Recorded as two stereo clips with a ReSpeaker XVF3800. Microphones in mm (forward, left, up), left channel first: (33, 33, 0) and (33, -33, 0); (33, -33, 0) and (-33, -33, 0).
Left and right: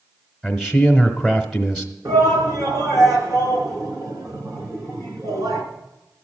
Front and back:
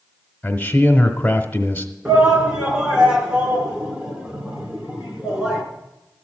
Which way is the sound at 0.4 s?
Straight ahead.